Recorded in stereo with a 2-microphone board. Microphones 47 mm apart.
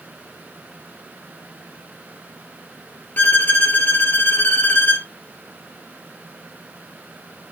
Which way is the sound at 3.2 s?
40° left (ahead or behind).